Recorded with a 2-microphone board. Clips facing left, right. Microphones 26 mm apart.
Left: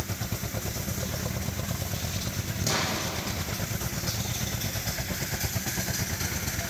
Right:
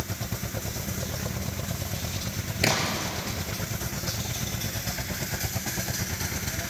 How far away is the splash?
About 6.5 m.